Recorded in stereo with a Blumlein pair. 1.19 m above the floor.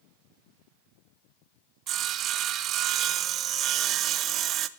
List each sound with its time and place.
1.9 s sawing: 30° right, 0.7 m